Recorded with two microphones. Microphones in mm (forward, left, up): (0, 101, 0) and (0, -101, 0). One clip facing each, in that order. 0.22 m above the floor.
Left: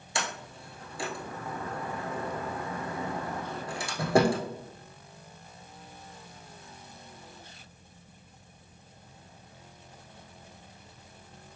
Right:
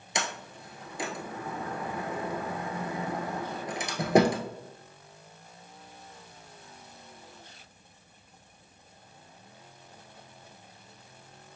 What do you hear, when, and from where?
0.1 s a sliding door: 20° right (ahead or behind), 0.7 m